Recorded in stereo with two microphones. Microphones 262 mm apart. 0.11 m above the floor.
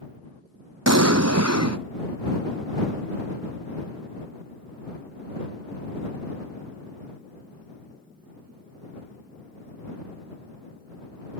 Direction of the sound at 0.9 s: 80° right.